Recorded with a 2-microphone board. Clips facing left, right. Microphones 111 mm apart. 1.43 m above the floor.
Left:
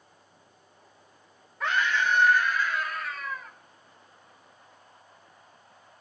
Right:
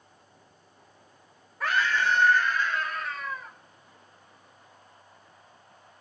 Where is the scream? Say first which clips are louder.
Even; 5° right (ahead or behind), 1.6 m; by 3.5 s 20° right (ahead or behind), 3 m.